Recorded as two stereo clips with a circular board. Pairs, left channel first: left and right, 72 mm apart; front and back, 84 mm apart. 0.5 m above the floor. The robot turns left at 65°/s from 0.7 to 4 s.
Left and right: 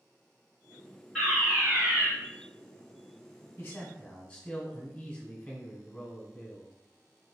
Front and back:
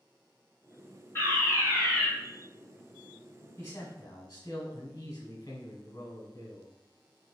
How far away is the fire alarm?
About 1.8 m.